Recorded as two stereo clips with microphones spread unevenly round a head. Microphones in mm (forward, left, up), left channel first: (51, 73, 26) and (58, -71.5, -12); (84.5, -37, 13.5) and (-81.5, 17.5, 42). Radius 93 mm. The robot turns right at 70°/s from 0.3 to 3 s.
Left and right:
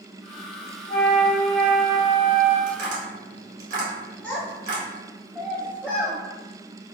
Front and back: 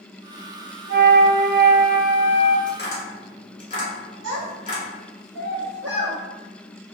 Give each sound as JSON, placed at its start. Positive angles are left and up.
{"t": 0.9, "sound": "a flute", "azimuth_deg": 145, "distance_m": 1.0}
{"t": 2.7, "sound": "tapping", "azimuth_deg": -105, "distance_m": 1.7}
{"t": 4.2, "sound": "a child speaking", "azimuth_deg": 170, "distance_m": 0.9}